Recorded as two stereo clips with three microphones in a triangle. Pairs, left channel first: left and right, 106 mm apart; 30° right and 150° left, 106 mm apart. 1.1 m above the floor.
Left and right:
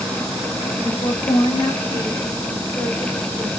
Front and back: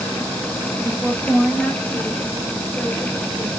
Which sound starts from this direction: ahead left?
A woman speaking, at 0.8 s.